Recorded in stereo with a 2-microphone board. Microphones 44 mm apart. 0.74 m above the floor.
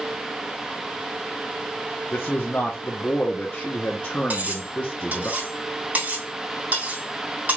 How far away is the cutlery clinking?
About 3.5 m.